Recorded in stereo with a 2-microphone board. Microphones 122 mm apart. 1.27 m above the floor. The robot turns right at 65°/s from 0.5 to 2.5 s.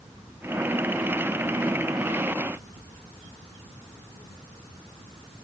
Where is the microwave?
No microwave in this recording.